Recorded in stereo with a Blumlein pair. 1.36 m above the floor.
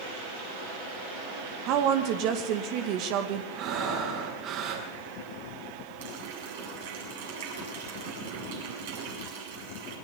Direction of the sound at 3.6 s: 35° right.